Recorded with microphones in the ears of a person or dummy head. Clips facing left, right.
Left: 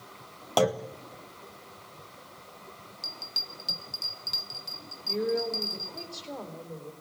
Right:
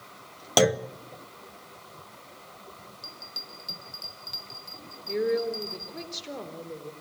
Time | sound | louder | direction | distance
0.6 | a clunk | right 3 dB | 20° right (ahead or behind) | 0.5 m
3.0 | a bell | even | 25° left (ahead or behind) | 0.9 m
5.1 | a woman speaking | right 3 dB | 25° right (ahead or behind) | 3.5 m